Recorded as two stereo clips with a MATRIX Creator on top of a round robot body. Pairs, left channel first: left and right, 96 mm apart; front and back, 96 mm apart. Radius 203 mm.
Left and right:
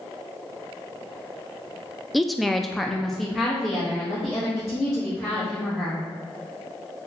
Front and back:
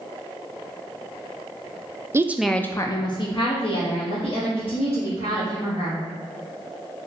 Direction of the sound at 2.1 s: Straight behind.